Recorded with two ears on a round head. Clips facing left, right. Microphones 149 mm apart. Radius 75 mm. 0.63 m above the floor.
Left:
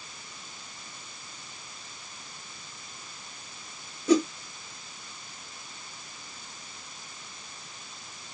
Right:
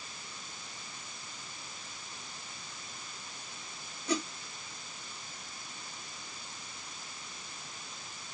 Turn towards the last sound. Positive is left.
turn(degrees=65)  # may be behind; listen again after turning